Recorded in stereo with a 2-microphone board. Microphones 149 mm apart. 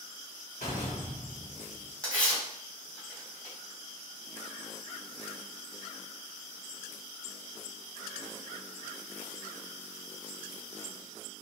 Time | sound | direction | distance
0.6 | a door slam | 55° left (ahead or behind) | 1.9 m
2.0 | tearing paper | 10° left (ahead or behind) | 2 m